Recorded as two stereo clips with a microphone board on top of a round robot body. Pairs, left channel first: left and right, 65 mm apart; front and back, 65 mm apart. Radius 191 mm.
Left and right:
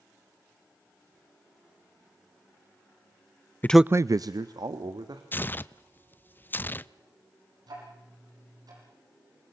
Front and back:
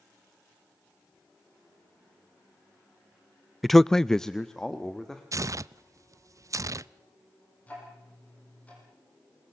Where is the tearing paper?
145° left, 0.5 m.